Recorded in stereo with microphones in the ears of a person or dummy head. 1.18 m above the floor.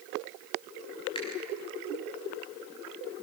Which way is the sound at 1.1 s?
35° left (ahead or behind).